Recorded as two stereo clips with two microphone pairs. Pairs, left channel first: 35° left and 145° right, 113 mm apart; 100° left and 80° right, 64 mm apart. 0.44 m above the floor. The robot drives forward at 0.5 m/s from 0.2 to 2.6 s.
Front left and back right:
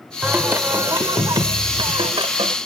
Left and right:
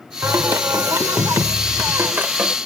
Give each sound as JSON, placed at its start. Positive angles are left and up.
{"t": 0.2, "sound": "singing", "azimuth_deg": -70}